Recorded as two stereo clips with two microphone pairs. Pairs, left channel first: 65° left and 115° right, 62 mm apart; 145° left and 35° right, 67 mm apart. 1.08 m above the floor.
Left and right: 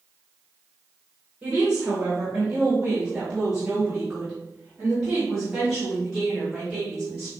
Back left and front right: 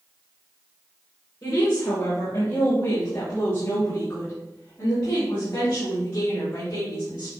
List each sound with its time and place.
1.4 s a woman speaking: 170° left, 3.5 m; by 7.3 s 165° left, 7 m